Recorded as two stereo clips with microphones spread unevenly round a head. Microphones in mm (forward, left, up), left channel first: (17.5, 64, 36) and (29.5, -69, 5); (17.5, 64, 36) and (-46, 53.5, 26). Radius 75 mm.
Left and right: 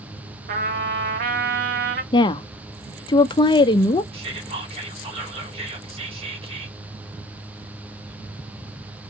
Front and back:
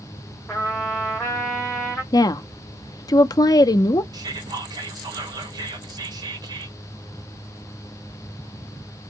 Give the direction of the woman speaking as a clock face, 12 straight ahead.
11 o'clock.